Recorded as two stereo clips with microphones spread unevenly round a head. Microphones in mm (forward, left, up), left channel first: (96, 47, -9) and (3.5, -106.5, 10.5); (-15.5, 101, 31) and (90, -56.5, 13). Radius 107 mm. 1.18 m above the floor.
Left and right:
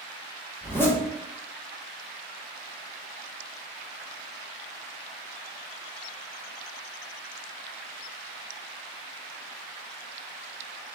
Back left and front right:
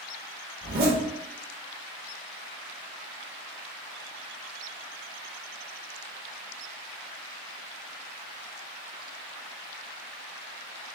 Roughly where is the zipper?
Ahead.